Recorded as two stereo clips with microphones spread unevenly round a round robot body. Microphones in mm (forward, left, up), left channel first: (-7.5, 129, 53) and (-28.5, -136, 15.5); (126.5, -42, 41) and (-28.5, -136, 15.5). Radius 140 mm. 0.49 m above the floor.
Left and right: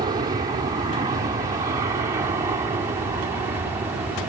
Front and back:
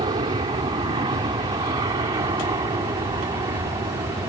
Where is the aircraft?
135° right; by 4.3 s 145° right.